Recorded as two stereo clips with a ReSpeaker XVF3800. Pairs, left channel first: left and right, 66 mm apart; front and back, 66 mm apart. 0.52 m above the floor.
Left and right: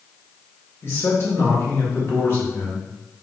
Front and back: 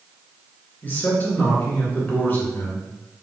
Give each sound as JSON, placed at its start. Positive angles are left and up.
{"t": 0.8, "sound": "a man speaking", "azimuth_deg": 50, "distance_m": 1.8}